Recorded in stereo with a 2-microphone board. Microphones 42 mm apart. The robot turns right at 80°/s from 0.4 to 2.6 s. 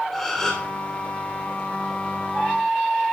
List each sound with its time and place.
0.1 s a gasp: 5° left (ahead or behind), 3.5 m; by 0.7 s 30° left (ahead or behind), 3.5 m